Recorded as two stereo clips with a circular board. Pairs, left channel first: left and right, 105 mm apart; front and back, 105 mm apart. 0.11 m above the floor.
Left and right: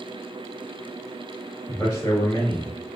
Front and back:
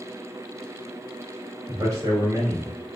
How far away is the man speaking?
About 1.4 m.